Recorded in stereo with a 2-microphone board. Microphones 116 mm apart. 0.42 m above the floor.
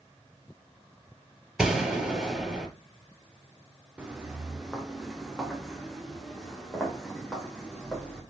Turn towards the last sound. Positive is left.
turn(degrees=5)  # may be behind; listen again after turning